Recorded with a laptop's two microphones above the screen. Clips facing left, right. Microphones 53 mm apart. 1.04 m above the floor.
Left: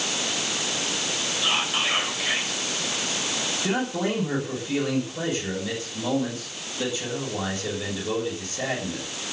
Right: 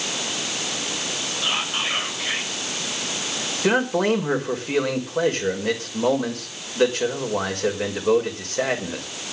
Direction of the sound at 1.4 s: 5° left (ahead or behind).